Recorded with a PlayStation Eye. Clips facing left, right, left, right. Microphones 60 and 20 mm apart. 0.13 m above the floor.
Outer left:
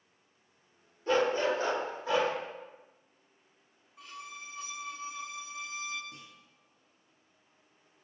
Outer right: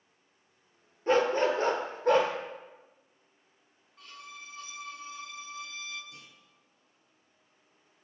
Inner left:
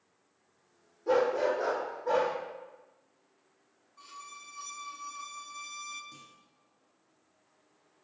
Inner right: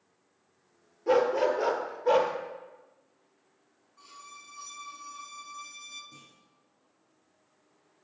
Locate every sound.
1.1 s a dog barking: 30° right (ahead or behind), 1.0 m; by 2.3 s 60° right (ahead or behind), 1.2 m
4.0 s a violin: 5° left (ahead or behind), 0.8 m
6.1 s a clunk: 35° left (ahead or behind), 3 m